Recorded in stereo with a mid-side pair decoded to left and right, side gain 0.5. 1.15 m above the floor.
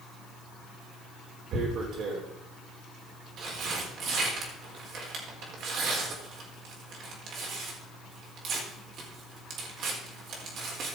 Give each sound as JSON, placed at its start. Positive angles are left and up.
{"t": 1.5, "sound": "tearing paper", "azimuth_deg": -65, "distance_m": 4.5}